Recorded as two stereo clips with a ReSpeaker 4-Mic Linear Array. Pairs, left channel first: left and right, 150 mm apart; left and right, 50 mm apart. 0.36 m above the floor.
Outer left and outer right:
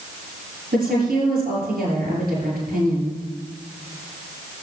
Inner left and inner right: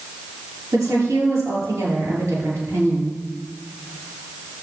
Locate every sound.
0.7 s a woman speaking: 80° right, 8 m